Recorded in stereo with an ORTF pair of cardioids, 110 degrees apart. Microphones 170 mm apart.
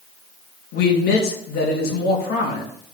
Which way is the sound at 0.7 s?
65° left.